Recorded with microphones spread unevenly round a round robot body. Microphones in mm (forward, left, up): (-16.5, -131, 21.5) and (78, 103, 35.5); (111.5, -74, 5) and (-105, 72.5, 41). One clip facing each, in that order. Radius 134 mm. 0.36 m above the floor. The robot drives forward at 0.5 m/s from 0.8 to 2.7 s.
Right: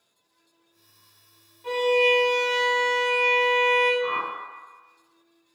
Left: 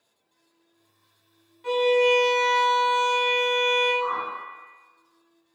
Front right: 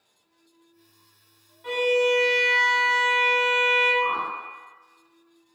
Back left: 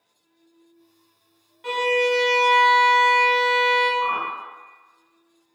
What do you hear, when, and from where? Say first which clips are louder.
1.6 s a violin: left 2 dB, even; 135° left, 0.5 m; by 3.9 s 160° left, 0.9 m
4.0 s a whoosh: right 3 dB, front right 1 dB; straight behind, 0.9 m